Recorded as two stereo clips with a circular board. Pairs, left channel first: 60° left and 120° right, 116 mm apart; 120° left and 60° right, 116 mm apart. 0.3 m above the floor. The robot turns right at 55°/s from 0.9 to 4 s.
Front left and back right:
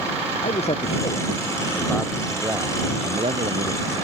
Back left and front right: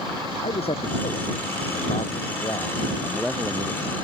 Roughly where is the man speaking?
Left.